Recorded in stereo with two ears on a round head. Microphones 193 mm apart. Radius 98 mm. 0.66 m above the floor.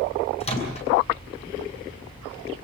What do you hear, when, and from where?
0.4 s a microwave: 30° left (ahead or behind), 8 m